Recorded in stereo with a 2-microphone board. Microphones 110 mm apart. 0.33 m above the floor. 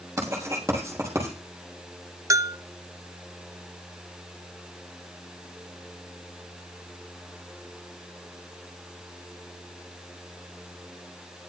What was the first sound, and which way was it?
Writing, 25° right (ahead or behind).